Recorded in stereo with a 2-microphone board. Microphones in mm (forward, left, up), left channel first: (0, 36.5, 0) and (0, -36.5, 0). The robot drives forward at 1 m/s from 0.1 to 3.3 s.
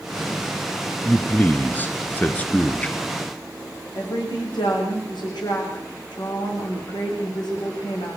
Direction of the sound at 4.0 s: 75° left (ahead or behind).